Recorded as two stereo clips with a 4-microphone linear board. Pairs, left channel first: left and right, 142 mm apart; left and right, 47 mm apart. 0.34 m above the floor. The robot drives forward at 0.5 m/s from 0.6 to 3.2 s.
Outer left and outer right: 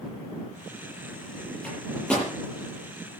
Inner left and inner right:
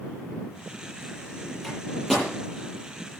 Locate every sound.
1.6 s a microwave: 10° left (ahead or behind), 8.5 m